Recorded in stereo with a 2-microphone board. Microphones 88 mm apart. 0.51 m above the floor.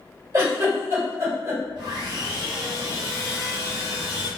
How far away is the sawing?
About 1.2 m.